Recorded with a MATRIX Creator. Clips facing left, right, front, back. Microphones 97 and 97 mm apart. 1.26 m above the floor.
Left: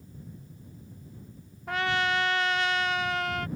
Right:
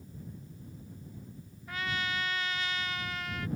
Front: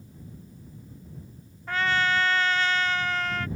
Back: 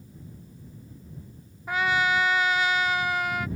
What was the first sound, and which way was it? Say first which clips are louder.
A trumpet: left 8 dB, back 1 dB; 100° left.